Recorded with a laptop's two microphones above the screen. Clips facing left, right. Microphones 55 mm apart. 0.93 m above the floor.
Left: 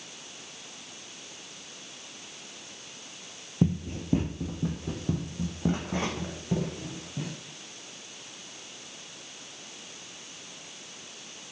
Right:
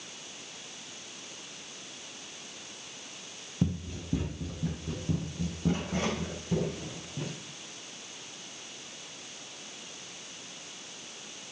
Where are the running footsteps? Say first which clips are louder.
Left 5 dB; 35° left (ahead or behind), 1.1 m; by 7.4 s 30° left (ahead or behind), 3.5 m.